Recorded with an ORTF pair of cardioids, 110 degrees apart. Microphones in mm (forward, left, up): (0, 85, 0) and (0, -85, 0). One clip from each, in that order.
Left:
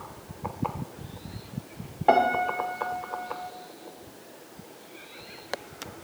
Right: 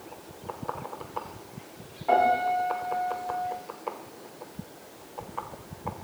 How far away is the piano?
About 0.5 m.